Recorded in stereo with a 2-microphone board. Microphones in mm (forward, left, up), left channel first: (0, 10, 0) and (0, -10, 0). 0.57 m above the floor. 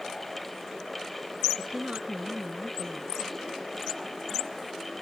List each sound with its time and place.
1.6 s a woman speaking: 80° right